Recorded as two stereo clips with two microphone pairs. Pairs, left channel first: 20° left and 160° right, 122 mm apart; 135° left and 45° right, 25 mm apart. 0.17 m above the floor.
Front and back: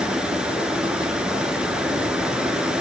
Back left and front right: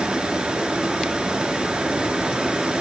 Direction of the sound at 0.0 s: 75° right.